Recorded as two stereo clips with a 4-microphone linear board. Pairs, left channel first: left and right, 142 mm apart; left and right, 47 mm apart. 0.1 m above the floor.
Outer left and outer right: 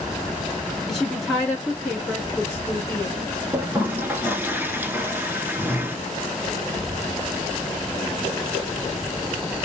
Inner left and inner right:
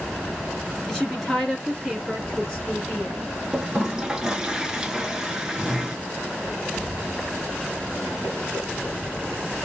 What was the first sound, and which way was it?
A woman speaking, centre (ahead or behind).